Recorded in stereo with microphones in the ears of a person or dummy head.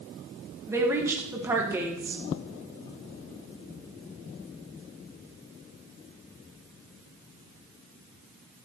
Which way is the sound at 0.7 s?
15° right (ahead or behind).